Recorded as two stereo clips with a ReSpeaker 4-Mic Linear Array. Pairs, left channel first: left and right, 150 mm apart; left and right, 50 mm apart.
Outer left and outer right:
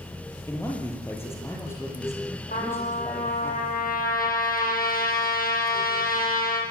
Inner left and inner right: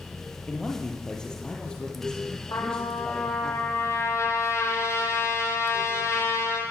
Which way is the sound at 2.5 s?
70° left (ahead or behind).